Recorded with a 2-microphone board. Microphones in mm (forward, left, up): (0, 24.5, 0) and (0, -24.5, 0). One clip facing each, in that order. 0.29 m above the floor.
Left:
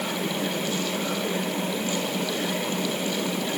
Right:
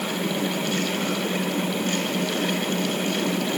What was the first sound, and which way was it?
Only background noise.